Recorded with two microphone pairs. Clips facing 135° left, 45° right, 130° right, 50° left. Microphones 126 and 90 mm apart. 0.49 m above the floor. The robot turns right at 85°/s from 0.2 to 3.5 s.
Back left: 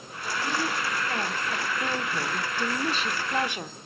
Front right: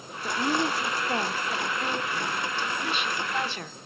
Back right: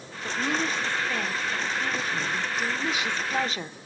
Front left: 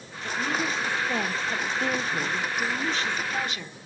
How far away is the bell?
No bell in this recording.